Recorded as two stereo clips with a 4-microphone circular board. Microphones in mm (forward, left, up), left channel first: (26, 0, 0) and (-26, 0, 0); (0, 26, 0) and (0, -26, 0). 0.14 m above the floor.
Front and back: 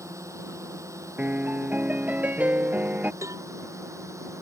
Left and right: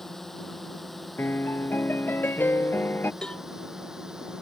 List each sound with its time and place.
0.0 s a drone: 175° left; by 4.4 s 170° right
1.2 s a piano: 130° left
3.2 s a cowbell: 165° left